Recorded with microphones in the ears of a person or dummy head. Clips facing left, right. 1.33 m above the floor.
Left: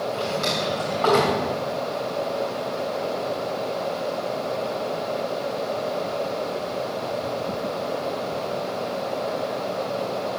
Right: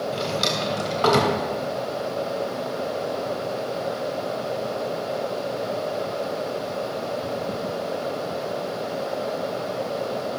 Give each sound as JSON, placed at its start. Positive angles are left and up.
{"t": 0.1, "sound": "a drawer", "side_deg": -55, "distance_m": 2.5}